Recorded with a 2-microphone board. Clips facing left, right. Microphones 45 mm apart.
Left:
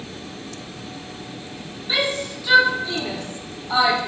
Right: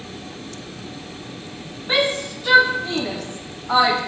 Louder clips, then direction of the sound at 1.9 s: Right 3 dB; 50° right (ahead or behind).